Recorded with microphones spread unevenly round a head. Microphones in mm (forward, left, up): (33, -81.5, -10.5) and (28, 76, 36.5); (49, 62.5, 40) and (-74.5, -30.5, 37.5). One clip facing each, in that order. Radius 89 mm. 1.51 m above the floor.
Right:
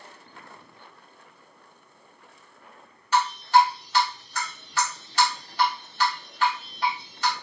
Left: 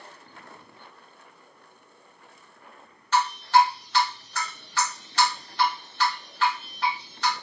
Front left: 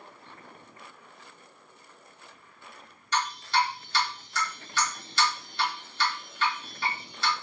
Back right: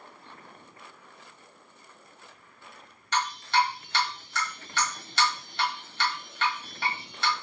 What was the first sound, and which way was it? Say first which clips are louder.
Dripping: even, back right 1 dB; 175° right.